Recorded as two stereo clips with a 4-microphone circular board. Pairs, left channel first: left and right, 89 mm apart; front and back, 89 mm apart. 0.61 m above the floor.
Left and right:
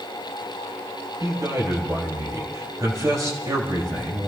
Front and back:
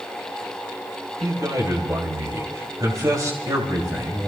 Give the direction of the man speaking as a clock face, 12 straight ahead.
5 o'clock.